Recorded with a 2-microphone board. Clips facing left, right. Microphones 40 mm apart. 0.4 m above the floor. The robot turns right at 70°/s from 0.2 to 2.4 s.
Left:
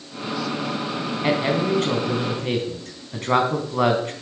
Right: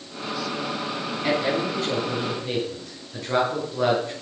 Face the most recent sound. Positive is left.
turn(degrees=65)  # may be behind; listen again after turning